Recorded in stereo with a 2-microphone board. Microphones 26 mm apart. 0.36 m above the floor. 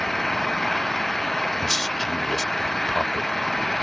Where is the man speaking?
5° left (ahead or behind).